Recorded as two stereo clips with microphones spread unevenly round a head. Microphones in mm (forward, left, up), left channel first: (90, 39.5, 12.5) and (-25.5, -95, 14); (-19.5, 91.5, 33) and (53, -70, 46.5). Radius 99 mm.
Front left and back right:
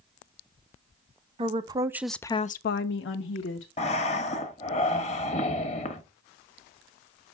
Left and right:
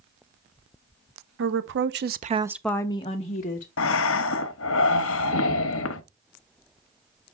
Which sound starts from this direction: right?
A woman speaking, at 1.4 s.